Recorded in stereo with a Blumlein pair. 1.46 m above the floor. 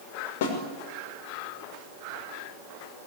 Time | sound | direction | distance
0.4 | a snare drum | 50° left | 6 m